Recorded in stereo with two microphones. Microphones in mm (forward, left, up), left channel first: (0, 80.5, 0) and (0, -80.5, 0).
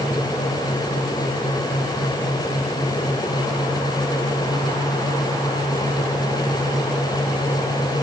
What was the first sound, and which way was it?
Only background noise.